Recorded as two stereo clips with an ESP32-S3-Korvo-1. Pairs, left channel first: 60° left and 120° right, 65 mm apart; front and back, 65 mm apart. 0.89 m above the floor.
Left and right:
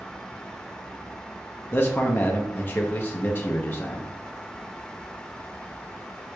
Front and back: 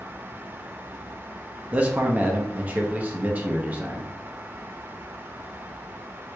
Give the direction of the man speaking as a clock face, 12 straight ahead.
8 o'clock.